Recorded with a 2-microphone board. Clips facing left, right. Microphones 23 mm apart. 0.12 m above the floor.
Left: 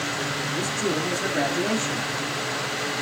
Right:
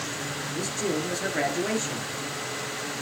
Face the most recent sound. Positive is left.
turn(degrees=-10)  # may be behind; listen again after turning